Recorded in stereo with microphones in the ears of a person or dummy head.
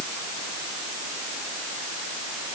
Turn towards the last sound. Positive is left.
No sound to turn to.